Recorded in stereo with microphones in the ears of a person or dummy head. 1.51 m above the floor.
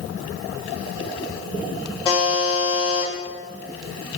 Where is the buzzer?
25° left (ahead or behind), 1.2 m.